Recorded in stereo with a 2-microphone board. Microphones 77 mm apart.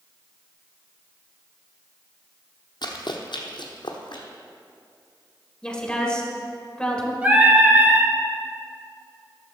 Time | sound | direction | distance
2.8 | running footsteps | 65° left (ahead or behind) | 1.1 m
5.6 | a woman speaking | 10° left (ahead or behind) | 1.5 m
7.2 | singing | 20° right (ahead or behind) | 1.4 m